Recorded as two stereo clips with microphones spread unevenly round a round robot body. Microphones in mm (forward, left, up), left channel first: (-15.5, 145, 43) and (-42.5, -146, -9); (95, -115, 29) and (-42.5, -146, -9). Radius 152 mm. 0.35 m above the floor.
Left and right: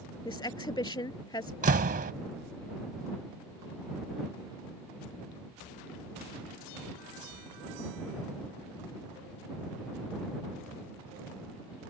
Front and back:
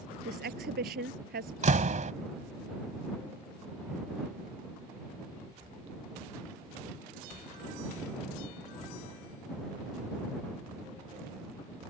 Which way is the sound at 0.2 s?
160° left.